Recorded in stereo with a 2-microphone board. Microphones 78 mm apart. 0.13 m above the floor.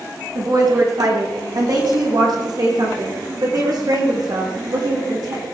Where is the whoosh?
No whoosh in this recording.